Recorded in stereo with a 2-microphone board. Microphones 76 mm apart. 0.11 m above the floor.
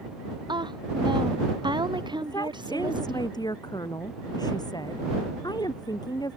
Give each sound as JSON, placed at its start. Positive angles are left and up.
{"t": 0.5, "sound": "a woman speaking", "side_deg": -85}
{"t": 2.2, "sound": "a woman speaking", "side_deg": 65}